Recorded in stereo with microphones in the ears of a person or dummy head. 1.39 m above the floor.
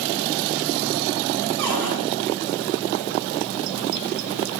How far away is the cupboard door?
About 3 m.